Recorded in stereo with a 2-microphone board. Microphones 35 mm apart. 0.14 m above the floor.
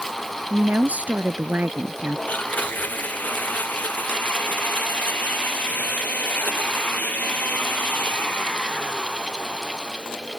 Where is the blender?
55° left (ahead or behind).